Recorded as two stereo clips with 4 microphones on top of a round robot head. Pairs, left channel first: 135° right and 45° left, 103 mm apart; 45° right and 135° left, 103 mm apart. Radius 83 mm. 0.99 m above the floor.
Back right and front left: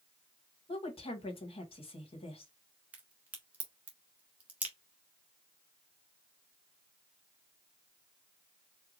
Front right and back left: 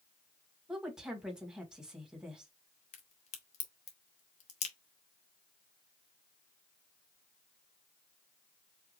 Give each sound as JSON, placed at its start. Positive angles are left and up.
{"t": 0.7, "sound": "a woman speaking", "azimuth_deg": -140, "distance_m": 1.6}
{"t": 2.9, "sound": "a crack", "azimuth_deg": -30, "distance_m": 1.2}